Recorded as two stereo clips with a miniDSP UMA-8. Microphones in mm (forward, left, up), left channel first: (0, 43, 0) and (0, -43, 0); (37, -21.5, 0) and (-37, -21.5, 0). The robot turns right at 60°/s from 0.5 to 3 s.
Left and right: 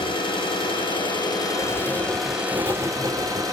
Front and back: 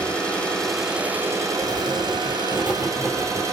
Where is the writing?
Straight behind, 4 m; by 3.4 s 95° right, 4 m.